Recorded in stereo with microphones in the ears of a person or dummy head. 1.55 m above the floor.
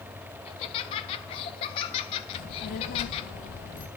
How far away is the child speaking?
About 1.0 m.